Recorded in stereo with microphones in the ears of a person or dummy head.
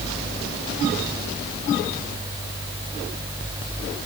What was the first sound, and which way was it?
Only background noise.